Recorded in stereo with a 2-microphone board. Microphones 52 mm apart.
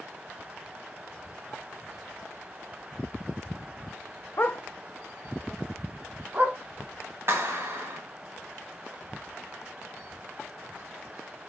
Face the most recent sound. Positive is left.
turn(degrees=-55)  # may be behind; listen again after turning